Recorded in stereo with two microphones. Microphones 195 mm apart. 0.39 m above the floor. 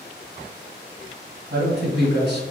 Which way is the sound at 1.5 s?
60° right (ahead or behind).